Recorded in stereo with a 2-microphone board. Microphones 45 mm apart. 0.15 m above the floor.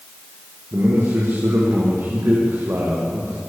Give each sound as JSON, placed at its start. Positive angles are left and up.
{"t": 0.7, "sound": "a man speaking", "side_deg": -70, "distance_m": 7.0}